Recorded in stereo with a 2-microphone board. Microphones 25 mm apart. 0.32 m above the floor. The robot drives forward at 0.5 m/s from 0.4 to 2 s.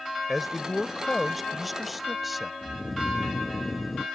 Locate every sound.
0.3 s a man speaking: 5° right (ahead or behind)
2.6 s snoring: 5° right (ahead or behind)